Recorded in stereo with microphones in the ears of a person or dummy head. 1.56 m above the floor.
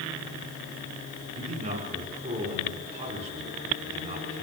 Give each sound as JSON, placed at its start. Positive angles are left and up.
{"t": 1.3, "sound": "a man speaking", "side_deg": -35, "distance_m": 6.0}